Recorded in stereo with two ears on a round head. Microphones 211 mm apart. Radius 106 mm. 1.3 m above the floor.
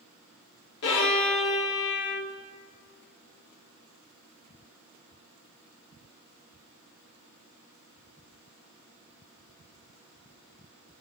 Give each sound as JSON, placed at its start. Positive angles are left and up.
{"t": 0.8, "sound": "a violin", "side_deg": 50, "distance_m": 1.6}